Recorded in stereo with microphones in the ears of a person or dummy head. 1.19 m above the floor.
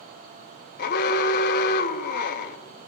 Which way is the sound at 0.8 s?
50° left (ahead or behind).